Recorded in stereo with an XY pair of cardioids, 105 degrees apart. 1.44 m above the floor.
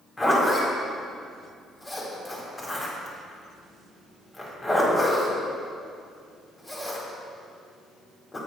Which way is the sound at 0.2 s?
20° left.